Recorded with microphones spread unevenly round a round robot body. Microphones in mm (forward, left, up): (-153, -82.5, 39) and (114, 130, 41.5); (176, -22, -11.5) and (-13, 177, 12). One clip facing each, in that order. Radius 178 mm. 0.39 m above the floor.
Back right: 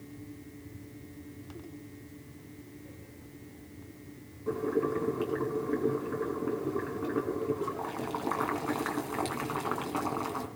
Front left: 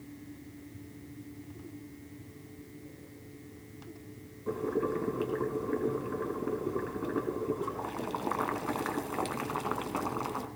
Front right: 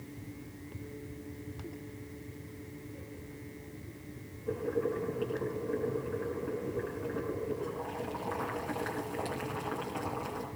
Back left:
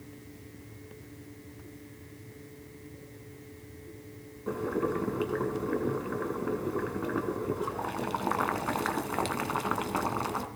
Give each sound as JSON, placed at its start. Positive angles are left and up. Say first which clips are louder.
{"t": 4.5, "sound": "boiling", "louder": "back right 2 dB, back left 2 dB", "azimuth_deg": 125, "distance_m": 2.5}